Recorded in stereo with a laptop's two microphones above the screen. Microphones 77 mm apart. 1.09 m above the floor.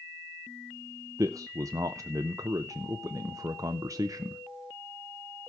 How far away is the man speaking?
About 0.5 m.